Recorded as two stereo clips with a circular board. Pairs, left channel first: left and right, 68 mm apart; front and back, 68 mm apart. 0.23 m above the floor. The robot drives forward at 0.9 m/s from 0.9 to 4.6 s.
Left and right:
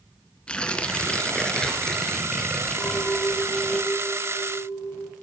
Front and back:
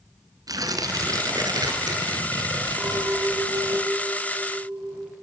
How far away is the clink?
About 5.5 m.